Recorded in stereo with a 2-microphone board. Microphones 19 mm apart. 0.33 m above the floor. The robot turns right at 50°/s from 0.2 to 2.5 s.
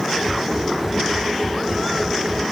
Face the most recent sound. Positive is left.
No sound to turn to.